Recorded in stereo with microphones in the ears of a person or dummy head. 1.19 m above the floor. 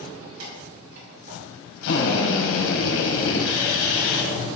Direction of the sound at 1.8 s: 75° left (ahead or behind).